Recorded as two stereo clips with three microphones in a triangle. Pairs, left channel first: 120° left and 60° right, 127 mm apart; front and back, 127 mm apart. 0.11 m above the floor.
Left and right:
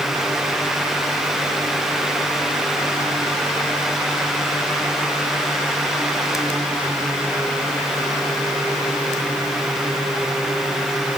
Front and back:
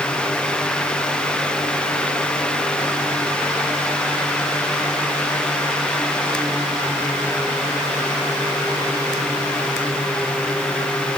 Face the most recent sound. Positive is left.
No sound to turn to.